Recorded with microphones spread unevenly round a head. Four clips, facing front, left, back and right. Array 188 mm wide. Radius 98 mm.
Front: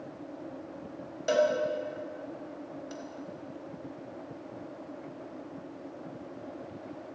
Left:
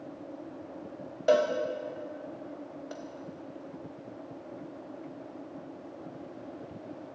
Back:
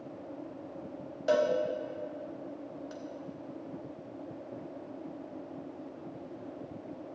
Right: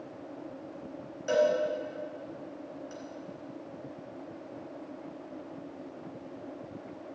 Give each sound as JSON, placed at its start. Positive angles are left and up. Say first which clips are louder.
{"t": 1.3, "sound": "a cowbell", "louder": "left 1 dB, front 1 dB", "azimuth_deg": 90, "distance_m": 1.6}